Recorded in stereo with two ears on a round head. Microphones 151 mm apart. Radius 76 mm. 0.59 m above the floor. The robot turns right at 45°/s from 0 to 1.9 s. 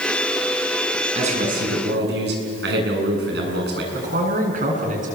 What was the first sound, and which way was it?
A man speaking, 145° right.